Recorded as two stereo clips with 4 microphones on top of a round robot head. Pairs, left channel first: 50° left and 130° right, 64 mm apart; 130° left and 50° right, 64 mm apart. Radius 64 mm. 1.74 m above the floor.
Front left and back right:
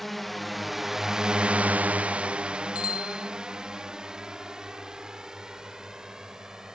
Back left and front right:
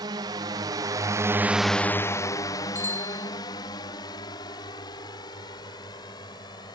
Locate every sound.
0.0 s a drone: 40° right; by 6.8 s 145° left
2.8 s a bicycle bell: 70° left